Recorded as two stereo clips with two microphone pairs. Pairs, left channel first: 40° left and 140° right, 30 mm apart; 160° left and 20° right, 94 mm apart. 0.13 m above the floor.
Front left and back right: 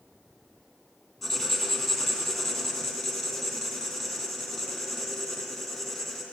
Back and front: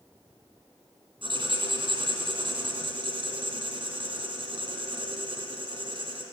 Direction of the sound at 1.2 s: 50° right.